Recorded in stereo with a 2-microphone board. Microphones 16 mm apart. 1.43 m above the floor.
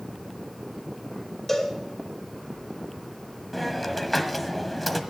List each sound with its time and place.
1.5 s a cowbell: 20° left (ahead or behind), 2.5 m
3.5 s a hiss: 10° left (ahead or behind), 1.3 m